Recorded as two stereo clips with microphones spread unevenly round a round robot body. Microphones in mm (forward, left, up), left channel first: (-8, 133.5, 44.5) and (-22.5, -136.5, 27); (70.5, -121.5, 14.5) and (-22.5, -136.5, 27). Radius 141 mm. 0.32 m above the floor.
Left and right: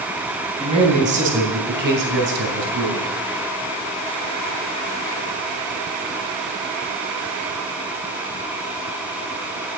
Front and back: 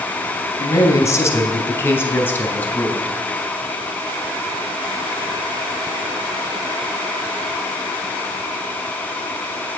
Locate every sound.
0.6 s a man speaking: 30° right, 2.5 m; by 3.1 s 65° right, 4 m